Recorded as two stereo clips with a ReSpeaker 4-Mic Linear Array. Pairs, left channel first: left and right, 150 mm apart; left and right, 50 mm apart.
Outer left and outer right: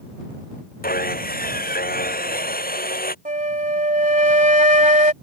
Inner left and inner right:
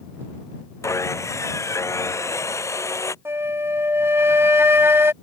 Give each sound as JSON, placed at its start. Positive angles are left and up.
{"t": 0.8, "sound": "sawing", "side_deg": 75}
{"t": 3.2, "sound": "a flute", "side_deg": -60}